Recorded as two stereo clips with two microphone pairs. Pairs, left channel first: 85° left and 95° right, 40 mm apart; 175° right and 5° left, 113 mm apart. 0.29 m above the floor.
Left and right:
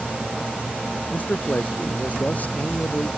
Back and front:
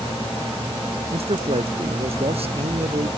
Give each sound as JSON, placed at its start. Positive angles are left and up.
{"t": 1.1, "sound": "a man speaking", "azimuth_deg": 35}